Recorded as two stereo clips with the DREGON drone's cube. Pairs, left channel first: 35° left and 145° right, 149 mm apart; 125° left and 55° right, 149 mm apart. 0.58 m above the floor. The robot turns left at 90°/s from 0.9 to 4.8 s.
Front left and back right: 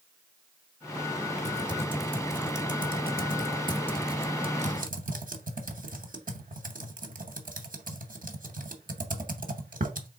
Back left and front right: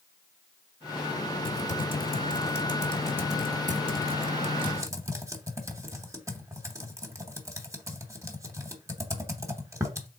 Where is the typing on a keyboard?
175° left, 0.8 m; by 10.1 s 125° right, 0.8 m.